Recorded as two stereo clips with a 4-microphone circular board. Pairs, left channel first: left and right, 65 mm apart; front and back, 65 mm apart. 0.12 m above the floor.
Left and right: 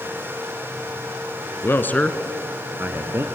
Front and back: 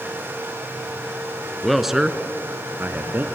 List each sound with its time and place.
1.6 s a man speaking: 85° left, 1.4 m; by 3.2 s 130° right, 2 m